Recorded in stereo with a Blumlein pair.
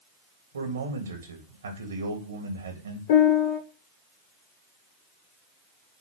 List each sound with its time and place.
0.5 s a man speaking: 70° right, 3 m
3.1 s a piano: 50° left, 1.7 m